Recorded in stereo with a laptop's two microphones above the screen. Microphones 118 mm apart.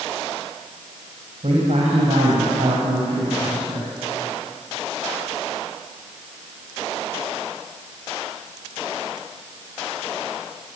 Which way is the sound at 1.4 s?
65° right (ahead or behind).